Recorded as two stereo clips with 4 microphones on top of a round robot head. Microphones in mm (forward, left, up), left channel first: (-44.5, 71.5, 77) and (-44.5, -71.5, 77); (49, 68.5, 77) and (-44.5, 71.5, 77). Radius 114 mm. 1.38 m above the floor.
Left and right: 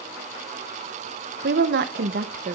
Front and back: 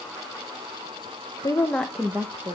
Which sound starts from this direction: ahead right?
A woman speaking, at 1.4 s.